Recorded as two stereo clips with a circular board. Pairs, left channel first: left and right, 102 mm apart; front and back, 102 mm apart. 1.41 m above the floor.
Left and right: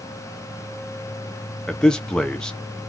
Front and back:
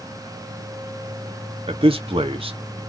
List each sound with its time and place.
1.7 s a man speaking: 170° left, 0.7 m